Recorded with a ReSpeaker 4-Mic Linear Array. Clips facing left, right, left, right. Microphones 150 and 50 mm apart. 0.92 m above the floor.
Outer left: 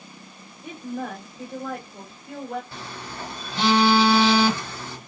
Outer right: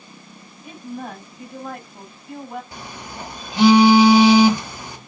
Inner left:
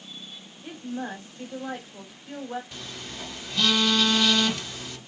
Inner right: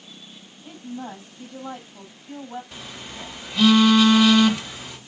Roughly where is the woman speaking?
Left.